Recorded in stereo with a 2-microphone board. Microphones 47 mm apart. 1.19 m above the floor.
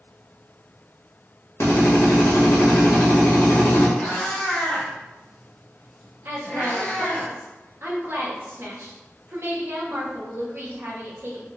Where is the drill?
70° left (ahead or behind), 1.6 m.